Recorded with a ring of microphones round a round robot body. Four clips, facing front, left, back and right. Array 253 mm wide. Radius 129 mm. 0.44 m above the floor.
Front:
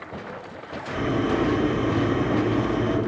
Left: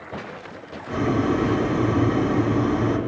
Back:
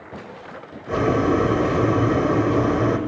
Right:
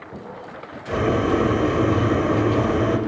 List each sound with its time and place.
0.9 s boiling: 145° right, 2.5 m